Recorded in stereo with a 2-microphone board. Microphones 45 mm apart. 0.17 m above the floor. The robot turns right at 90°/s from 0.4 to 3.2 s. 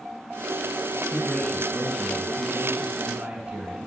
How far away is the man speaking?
About 2.5 m.